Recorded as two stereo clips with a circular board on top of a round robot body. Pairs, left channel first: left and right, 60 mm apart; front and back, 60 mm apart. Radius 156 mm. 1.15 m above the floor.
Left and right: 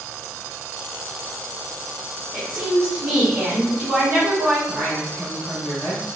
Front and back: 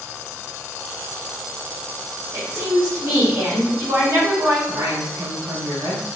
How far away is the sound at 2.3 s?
About 2 m.